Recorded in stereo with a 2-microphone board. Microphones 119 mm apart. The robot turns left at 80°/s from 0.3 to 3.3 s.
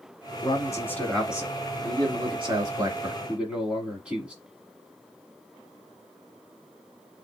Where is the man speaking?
60° left, 1.3 m; by 4.3 s 170° right, 1.3 m.